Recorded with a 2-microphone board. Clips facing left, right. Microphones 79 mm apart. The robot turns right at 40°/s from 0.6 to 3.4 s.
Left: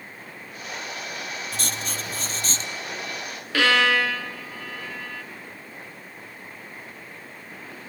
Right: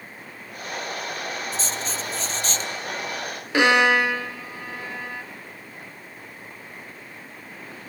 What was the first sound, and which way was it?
Writing, 100° left.